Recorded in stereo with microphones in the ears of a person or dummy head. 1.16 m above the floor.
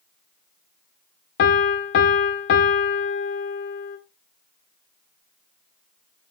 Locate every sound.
1.4 s a piano: 55° left (ahead or behind), 0.9 m